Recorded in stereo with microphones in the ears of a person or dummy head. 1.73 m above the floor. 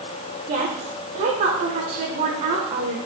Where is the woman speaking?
40° right (ahead or behind), 1.5 m.